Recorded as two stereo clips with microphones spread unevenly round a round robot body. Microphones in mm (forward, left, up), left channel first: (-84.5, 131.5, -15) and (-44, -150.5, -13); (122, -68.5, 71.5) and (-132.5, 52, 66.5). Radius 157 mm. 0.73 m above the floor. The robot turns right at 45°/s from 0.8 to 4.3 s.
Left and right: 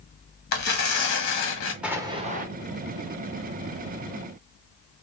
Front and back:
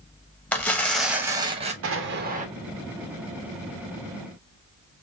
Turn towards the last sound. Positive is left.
turn(degrees=-55)